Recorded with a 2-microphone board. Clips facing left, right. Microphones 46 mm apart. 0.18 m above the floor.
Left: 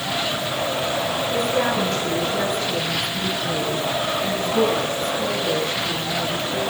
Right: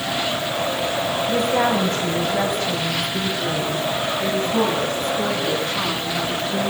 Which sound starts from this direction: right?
A woman speaking, at 1.3 s.